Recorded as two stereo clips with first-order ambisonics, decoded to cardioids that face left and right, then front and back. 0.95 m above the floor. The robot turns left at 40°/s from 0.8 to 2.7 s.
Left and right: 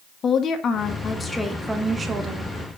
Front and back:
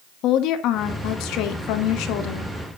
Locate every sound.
0.2 s a woman speaking: 30° left, 1.4 m; by 2.5 s 35° right, 1.4 m